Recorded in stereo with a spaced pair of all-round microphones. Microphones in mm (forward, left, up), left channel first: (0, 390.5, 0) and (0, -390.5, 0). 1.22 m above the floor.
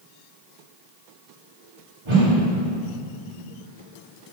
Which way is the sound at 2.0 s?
40° right (ahead or behind).